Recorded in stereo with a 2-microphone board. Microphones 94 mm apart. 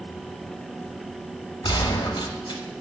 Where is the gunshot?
55° left (ahead or behind), 0.7 m.